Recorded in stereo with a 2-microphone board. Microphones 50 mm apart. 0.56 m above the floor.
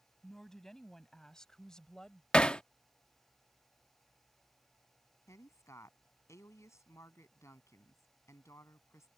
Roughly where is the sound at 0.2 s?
Centre.